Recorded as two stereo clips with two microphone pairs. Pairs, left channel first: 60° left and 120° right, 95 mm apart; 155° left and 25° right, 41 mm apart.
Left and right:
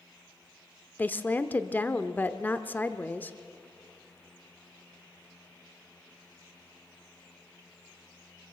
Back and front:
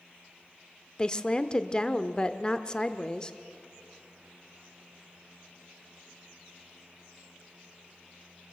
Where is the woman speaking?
105° left, 0.8 m.